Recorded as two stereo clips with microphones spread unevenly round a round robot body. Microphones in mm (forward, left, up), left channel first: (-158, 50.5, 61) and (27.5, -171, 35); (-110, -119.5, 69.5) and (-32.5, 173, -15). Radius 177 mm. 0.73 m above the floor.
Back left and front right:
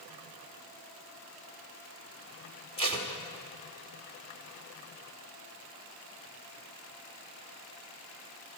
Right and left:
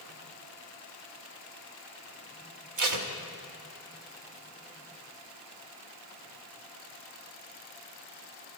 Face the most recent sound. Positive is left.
turn(degrees=55)